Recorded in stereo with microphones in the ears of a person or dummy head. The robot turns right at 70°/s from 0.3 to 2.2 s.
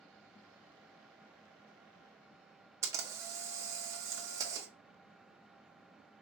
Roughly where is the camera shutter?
Centre.